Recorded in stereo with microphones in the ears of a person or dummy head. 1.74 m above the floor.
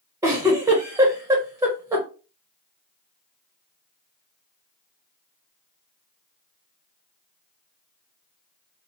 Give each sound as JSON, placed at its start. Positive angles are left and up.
{"t": 0.2, "sound": "a giggle", "side_deg": -10, "distance_m": 0.8}